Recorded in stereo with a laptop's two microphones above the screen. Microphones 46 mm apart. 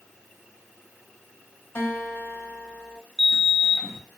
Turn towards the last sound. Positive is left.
turn(degrees=10)  # may be behind; listen again after turning